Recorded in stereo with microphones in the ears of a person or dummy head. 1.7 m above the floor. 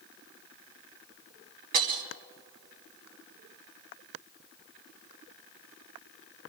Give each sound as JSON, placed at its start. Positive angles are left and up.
{"t": 1.7, "sound": "breaking glass", "side_deg": -50, "distance_m": 1.7}